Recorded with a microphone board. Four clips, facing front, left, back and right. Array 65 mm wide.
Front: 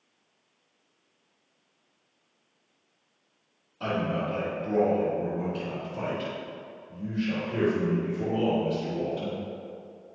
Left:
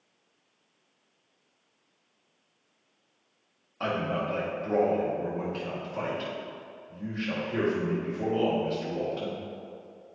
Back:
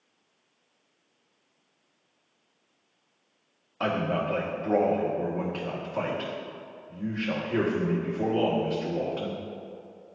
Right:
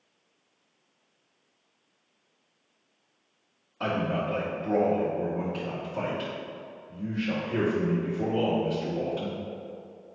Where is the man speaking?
175° left, 2 m.